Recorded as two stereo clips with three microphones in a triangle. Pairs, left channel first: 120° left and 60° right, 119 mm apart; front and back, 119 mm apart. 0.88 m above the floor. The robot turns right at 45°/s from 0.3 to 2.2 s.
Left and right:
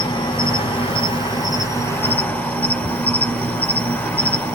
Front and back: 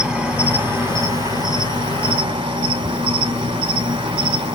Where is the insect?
100° left, 1.0 m; by 4.5 s 175° right, 1.0 m.